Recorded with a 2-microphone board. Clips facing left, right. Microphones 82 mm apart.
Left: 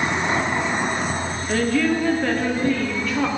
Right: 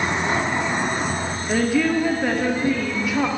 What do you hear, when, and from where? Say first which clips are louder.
1.5 s a woman speaking: right 1 dB; 10° right (ahead or behind), 0.6 m